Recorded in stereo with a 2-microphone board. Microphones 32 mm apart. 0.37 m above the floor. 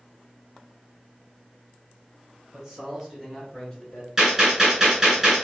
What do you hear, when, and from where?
2.5 s a man speaking: 20° right (ahead or behind), 1.3 m; by 4.1 s 30° left (ahead or behind), 1.4 m
4.2 s a gunshot: 15° right (ahead or behind), 1.8 m